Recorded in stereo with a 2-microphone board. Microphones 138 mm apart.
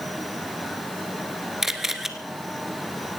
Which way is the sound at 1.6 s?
5° right (ahead or behind).